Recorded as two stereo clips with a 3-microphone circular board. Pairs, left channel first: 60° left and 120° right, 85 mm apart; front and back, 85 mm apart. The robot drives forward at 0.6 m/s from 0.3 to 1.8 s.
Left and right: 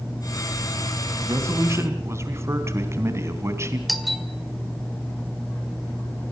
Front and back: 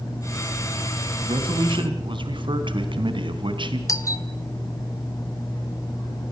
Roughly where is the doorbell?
Ahead right.